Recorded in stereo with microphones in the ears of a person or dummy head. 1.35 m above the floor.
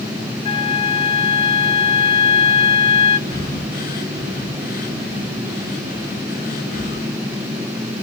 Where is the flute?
25° left (ahead or behind), 1.0 m.